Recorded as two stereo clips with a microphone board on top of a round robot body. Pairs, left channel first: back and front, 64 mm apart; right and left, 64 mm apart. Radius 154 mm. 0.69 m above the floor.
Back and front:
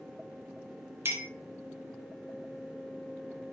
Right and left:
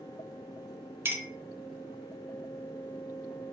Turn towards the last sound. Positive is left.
turn(degrees=45)